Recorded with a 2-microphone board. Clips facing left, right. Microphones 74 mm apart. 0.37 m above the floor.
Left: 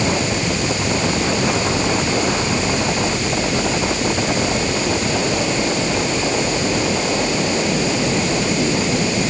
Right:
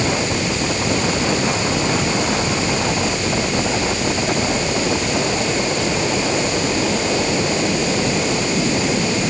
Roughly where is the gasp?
I don't hear a gasp.